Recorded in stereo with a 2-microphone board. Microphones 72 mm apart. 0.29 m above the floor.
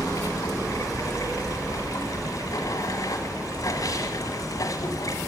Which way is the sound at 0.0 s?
55° left (ahead or behind).